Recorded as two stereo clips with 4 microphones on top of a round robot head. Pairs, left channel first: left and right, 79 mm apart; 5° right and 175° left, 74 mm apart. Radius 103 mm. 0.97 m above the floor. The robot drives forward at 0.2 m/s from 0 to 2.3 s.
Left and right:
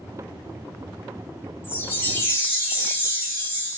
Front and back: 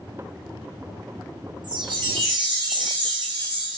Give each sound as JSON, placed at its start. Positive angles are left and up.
{"t": 1.6, "sound": "a chime", "azimuth_deg": 150, "distance_m": 1.8}